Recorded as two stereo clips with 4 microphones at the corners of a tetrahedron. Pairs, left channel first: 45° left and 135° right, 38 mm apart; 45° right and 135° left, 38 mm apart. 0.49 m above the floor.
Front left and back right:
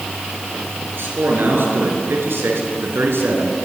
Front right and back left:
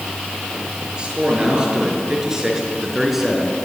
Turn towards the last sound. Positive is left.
turn(degrees=-135)